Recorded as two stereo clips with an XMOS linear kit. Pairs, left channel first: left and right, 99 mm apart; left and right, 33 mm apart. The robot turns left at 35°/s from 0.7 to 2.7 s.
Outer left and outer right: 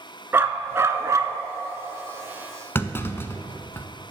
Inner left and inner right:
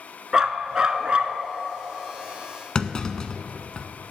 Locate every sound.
0.3 s a dog barking: 25° right (ahead or behind), 0.5 m; by 1.4 s 40° right (ahead or behind), 0.5 m
2.8 s a clunk: 25° left (ahead or behind), 0.5 m